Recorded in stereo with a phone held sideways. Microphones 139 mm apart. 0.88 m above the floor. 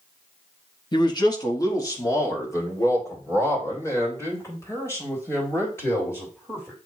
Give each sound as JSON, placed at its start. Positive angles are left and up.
{"t": 0.9, "sound": "a man speaking", "side_deg": 30, "distance_m": 0.9}